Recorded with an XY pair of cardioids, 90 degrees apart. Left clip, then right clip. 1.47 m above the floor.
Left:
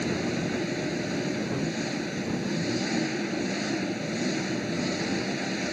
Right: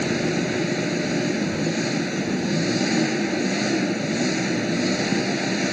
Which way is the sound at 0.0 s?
45° right.